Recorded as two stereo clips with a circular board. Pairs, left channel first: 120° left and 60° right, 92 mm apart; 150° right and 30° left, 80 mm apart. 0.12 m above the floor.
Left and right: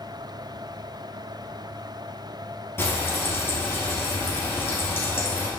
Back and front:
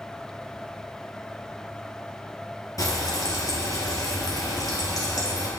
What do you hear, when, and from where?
2.8 s frying: straight behind, 2 m